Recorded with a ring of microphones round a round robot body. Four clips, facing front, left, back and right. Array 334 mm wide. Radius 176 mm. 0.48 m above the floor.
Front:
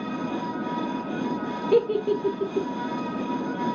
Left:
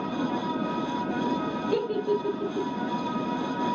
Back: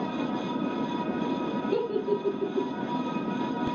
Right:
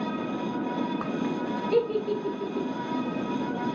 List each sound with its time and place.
1.7 s a giggle: 10° left, 0.7 m